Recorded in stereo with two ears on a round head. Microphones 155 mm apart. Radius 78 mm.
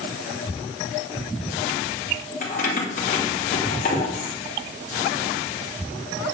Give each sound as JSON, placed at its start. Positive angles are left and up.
{"t": 2.4, "sound": "keys jangling", "side_deg": 45, "distance_m": 2.5}